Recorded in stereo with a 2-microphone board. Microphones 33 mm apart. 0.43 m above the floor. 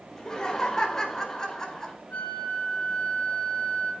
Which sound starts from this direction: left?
A flute, at 2.1 s.